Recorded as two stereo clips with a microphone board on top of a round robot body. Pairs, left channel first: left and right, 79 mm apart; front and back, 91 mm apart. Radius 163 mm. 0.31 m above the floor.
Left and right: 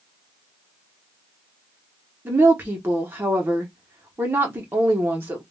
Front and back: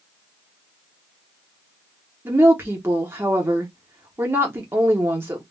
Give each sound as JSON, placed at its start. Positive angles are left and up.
{"t": 2.2, "sound": "a woman speaking", "azimuth_deg": -135, "distance_m": 1.0}